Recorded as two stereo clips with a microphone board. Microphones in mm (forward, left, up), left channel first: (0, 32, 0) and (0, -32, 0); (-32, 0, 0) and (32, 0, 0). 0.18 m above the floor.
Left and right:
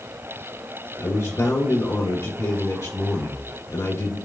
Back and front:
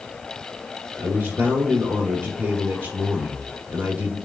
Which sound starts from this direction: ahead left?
A man speaking, at 1.0 s.